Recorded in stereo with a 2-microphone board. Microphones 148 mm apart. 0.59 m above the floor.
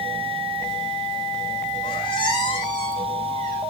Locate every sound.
1.8 s a squeak: 35° left (ahead or behind), 6 m